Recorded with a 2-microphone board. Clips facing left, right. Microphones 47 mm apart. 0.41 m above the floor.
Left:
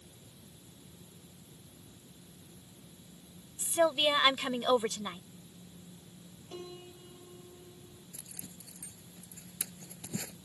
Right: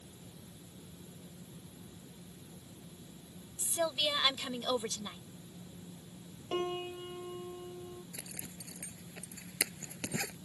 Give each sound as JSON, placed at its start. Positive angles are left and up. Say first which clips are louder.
{"t": 3.6, "sound": "a woman speaking", "louder": "left 6 dB", "side_deg": 30}
{"t": 6.5, "sound": "a piano", "louder": "right 11 dB", "side_deg": -55}
{"t": 8.1, "sound": "a zipper", "louder": "right 4 dB", "side_deg": -85}